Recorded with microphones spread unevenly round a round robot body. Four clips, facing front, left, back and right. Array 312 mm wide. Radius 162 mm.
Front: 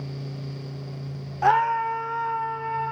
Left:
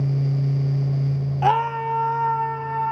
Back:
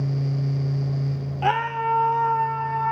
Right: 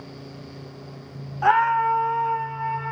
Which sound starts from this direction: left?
A scream, at 1.4 s.